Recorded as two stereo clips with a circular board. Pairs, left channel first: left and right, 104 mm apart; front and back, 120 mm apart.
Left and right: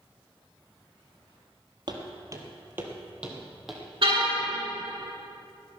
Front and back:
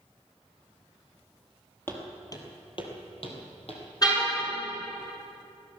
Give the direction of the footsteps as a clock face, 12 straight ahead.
2 o'clock.